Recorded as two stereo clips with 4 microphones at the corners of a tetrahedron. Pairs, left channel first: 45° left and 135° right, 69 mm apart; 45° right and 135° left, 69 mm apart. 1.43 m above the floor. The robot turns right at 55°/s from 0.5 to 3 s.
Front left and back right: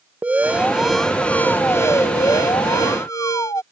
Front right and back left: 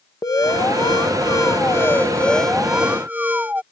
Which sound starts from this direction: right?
An alarm, at 0.2 s.